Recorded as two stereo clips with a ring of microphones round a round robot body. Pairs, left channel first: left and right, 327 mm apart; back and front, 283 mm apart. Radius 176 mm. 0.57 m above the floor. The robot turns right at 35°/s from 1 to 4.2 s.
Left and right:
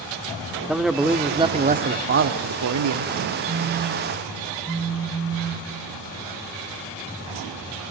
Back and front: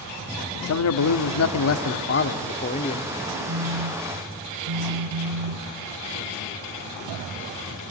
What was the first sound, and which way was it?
A man speaking, straight behind.